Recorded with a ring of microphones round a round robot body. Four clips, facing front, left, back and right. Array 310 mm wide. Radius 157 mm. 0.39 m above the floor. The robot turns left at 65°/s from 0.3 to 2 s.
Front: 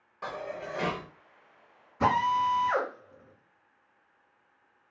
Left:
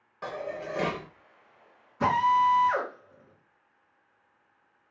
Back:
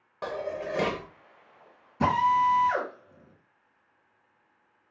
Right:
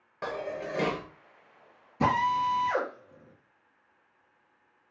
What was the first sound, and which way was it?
Dishes clattering, 145° right.